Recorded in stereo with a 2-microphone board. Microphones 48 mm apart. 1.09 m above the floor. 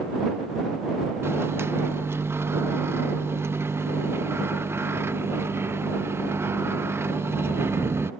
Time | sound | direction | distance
1.2 | a microwave | 55° right (ahead or behind) | ?